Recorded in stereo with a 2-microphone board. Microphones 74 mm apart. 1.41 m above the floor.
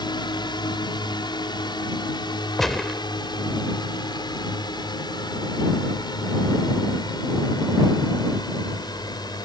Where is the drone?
70° left (ahead or behind); by 9.5 s 60° left (ahead or behind).